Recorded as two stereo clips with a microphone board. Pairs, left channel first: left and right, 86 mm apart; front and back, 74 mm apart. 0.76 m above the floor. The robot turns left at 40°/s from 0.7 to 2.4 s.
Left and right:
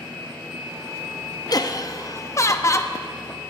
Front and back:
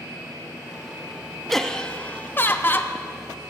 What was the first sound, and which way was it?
Laughter, 85° left.